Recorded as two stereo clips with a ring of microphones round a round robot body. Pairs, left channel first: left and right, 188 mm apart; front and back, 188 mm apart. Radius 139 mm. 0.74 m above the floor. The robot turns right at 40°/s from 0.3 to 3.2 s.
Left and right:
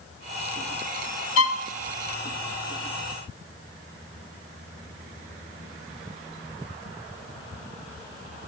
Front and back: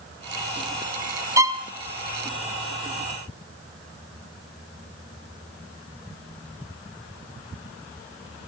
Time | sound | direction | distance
1.4 | a violin | 105° left | 1.1 m